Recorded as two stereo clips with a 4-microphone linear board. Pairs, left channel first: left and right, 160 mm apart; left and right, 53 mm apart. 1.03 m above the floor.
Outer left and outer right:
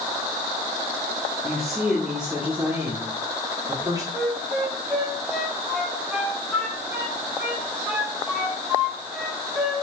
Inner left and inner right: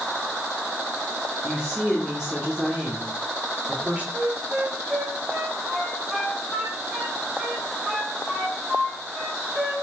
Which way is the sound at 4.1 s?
5° right (ahead or behind).